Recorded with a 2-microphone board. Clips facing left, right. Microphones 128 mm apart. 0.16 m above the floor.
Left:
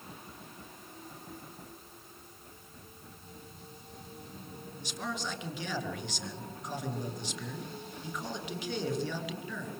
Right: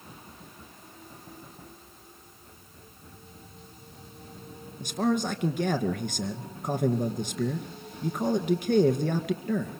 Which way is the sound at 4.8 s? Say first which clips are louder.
Right 12 dB; 55° right (ahead or behind).